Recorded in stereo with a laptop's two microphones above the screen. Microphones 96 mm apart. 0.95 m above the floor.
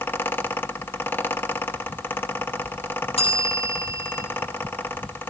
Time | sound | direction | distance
0.0 | a fan | 20° left (ahead or behind) | 1.0 m
3.2 | a bell | 80° left | 7.5 m